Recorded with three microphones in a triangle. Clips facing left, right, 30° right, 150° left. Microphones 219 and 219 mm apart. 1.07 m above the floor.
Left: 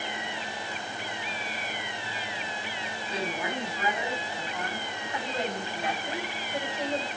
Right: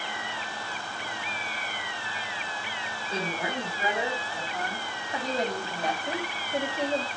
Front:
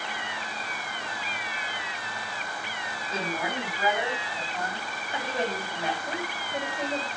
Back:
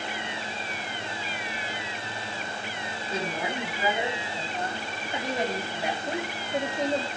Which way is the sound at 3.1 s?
135° right.